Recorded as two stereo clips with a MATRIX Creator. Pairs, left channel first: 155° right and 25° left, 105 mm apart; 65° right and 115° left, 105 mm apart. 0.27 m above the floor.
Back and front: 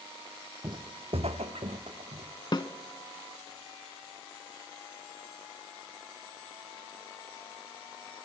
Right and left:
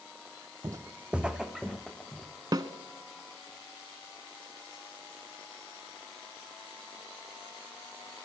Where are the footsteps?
65° left, 0.5 m; by 2.3 s 20° left, 2 m.